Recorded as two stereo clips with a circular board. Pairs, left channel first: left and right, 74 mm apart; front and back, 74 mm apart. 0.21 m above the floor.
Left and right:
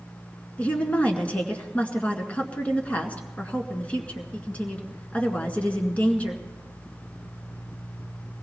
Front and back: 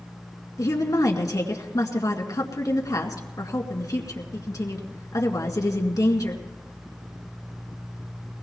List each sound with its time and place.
0.6 s a woman speaking: 25° left, 2 m